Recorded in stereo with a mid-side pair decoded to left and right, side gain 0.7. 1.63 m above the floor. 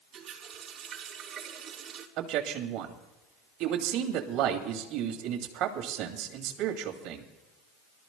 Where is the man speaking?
60° right, 2 m.